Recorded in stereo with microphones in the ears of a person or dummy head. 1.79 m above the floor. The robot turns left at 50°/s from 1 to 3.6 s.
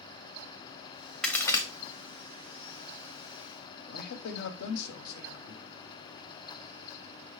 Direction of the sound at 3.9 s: 65° left (ahead or behind).